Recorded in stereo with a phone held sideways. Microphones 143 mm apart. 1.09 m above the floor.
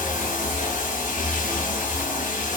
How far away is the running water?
About 0.7 m.